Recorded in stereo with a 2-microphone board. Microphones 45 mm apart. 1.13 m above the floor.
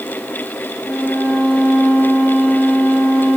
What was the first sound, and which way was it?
A violin, 45° left (ahead or behind).